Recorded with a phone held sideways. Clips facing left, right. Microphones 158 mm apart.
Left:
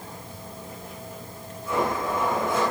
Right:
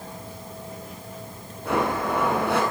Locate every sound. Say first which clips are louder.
1.6 s a blender: right 2 dB; 70° right (ahead or behind), 8 m